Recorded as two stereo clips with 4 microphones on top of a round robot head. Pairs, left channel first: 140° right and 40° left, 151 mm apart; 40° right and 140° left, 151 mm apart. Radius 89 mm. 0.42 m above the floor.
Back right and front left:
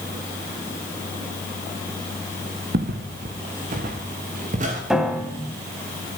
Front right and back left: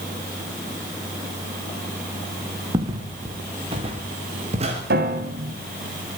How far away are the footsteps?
About 3 m.